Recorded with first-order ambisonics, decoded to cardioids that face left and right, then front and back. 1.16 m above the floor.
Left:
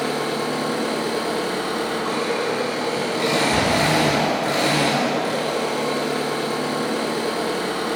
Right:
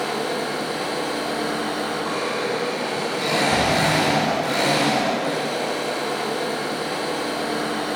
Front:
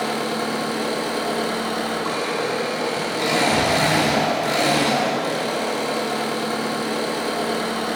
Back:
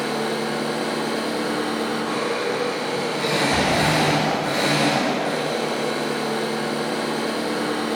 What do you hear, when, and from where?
0.0 s an engine running: 5° right, 3 m
3.5 s a door slam: 70° right, 2.5 m